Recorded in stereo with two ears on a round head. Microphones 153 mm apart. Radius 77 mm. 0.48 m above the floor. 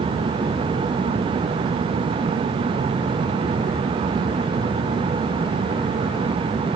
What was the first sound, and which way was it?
Only background noise.